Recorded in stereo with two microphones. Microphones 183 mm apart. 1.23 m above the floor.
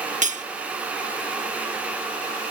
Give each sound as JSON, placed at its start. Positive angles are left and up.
{"t": 0.2, "sound": "cutlery clinking", "side_deg": -40}